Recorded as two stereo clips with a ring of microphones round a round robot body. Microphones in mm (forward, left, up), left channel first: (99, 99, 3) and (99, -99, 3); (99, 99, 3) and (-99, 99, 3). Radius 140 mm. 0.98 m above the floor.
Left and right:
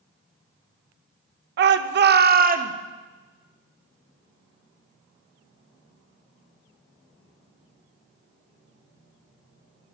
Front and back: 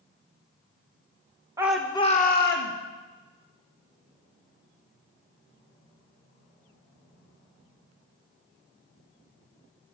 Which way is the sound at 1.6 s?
105° right.